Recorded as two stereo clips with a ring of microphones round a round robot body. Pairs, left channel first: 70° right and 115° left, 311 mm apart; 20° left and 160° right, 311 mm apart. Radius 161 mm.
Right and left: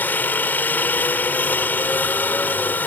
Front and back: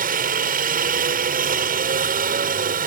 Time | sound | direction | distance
0.0 | a helicopter | 145° right | ?